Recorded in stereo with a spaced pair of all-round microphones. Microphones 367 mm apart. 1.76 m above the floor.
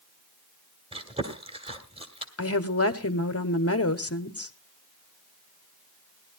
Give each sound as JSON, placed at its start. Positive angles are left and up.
{"t": 0.9, "sound": "chewing", "side_deg": -15, "distance_m": 1.5}
{"t": 2.4, "sound": "a woman speaking", "side_deg": 40, "distance_m": 0.9}